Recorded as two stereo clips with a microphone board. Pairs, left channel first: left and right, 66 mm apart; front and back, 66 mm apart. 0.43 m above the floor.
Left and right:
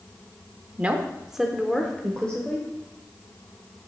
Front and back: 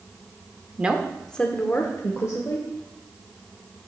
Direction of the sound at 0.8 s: 135° right.